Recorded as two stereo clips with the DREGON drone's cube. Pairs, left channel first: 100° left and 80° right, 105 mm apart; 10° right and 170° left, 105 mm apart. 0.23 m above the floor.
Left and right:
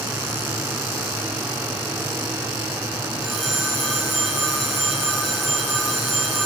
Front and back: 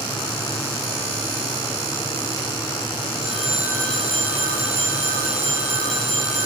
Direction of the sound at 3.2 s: 170° right.